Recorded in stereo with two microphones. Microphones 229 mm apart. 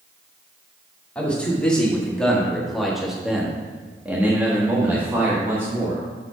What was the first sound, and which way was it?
A man speaking, 5° left (ahead or behind).